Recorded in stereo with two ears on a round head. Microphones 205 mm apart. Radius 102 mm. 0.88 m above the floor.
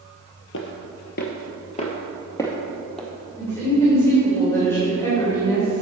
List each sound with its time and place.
0.5 s footsteps: 60° left (ahead or behind), 1.5 m; by 3.1 s centre (ahead or behind), 1.8 m
3.4 s a woman speaking: 10° left (ahead or behind), 3.5 m